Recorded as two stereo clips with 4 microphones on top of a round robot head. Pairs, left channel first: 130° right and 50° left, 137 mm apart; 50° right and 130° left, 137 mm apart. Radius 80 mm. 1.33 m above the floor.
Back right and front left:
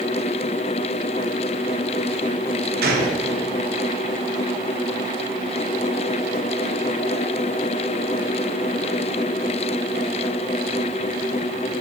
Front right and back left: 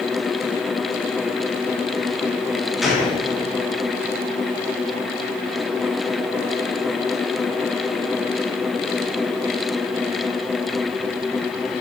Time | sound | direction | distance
2.8 | a gunshot | 40° left | 2 m